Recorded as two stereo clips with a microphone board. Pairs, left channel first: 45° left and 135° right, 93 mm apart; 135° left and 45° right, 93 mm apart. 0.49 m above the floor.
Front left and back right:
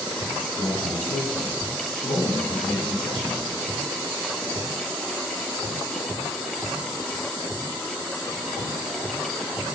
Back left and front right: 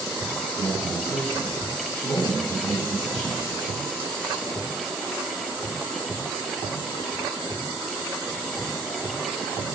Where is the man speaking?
60° left, 4.5 m.